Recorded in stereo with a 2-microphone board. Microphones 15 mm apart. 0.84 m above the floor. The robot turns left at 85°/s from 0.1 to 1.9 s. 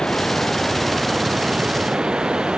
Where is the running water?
65° left; by 2.6 s 85° right.